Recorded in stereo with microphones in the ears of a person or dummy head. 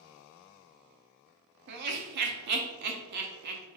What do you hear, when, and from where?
1.7 s laughter: 55° right (ahead or behind), 0.5 m